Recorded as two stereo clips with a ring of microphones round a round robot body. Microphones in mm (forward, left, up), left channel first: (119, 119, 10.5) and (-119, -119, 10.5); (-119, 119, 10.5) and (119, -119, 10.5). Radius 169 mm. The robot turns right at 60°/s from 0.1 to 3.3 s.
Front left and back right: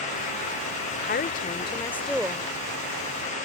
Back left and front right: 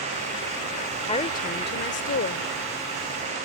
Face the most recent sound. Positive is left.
turn(degrees=-155)